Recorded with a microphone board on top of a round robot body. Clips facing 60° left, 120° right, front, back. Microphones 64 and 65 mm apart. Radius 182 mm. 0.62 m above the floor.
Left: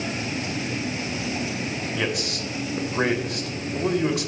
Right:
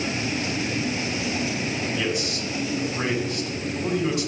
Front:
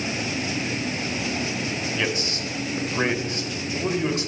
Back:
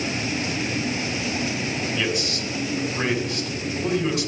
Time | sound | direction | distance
1.9 | a man speaking | 55° left | 2.5 m